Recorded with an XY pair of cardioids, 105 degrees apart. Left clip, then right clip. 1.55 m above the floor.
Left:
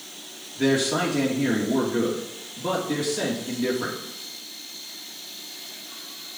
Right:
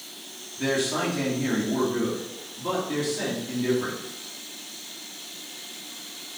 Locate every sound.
0.6 s a man speaking: 65° left, 2.5 m